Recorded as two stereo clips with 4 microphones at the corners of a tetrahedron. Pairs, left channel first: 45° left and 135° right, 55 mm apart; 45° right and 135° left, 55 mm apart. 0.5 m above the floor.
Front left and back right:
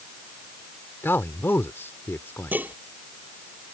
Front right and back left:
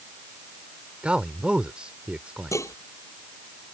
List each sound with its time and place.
1.0 s a man speaking: 70° left
2.5 s dishes clattering: 75° right